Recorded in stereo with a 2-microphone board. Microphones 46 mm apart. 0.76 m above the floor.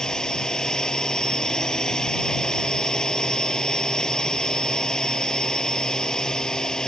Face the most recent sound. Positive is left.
turn(degrees=15)  # may be behind; listen again after turning